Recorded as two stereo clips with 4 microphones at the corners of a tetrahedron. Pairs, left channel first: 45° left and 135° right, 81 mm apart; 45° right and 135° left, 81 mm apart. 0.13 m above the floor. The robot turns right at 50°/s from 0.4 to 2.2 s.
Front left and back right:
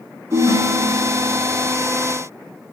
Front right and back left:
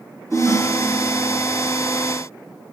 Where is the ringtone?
150° right, 3.5 m; by 1.5 s 95° right, 3.5 m.